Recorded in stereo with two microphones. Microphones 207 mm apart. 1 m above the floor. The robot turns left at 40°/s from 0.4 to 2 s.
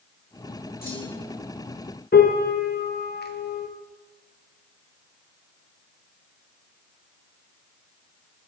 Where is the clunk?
45° left (ahead or behind), 1.6 m; by 1.4 s 20° left (ahead or behind), 1.6 m.